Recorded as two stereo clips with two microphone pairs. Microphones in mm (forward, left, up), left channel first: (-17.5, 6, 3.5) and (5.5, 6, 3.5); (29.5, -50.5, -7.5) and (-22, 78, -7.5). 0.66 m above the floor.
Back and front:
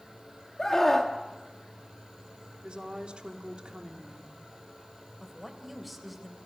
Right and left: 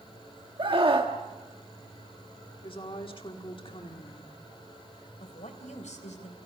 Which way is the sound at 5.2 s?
90° right.